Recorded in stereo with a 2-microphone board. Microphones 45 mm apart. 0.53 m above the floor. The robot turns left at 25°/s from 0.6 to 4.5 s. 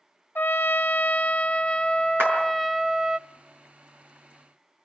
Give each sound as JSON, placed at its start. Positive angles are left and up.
{"t": 0.3, "sound": "a trumpet", "azimuth_deg": 55, "distance_m": 0.6}
{"t": 2.2, "sound": "a clap", "side_deg": -50, "distance_m": 6.5}